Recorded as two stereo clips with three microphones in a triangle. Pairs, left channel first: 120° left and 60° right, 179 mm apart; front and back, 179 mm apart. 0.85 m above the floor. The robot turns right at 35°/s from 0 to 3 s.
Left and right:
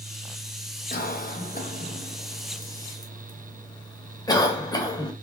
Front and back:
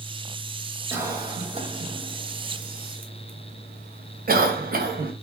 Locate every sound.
0.9 s a cough: 105° left, 0.7 m; by 5.1 s straight behind, 0.7 m